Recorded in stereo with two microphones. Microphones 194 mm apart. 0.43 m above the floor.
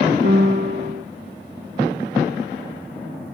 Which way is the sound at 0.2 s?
40° right (ahead or behind).